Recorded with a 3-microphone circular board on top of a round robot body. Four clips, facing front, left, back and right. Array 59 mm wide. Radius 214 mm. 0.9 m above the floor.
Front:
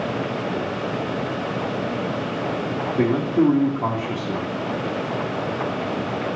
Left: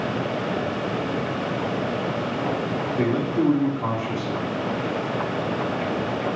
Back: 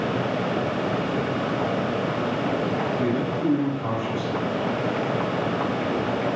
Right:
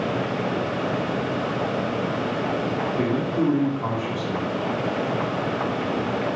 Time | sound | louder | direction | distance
3.0 | a man speaking | left 2 dB, front 5 dB | 5° left | 1.4 m